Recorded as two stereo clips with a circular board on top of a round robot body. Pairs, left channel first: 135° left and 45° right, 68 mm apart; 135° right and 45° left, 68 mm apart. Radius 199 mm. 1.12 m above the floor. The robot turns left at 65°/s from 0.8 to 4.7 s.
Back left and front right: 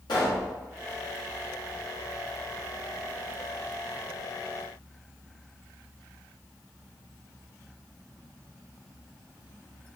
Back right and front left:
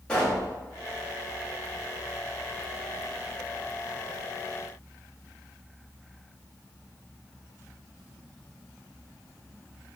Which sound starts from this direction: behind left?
A pop, at 0.1 s.